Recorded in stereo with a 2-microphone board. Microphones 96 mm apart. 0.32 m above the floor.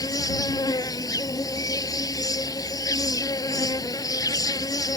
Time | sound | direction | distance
0.0 | an insect | 40° left (ahead or behind) | ?